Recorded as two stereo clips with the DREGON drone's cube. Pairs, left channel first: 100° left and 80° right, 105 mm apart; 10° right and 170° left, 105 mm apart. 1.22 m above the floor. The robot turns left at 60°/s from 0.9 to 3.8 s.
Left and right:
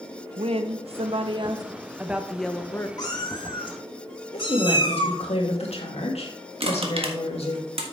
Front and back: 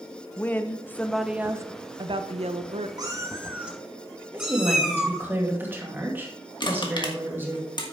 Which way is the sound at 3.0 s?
135° left.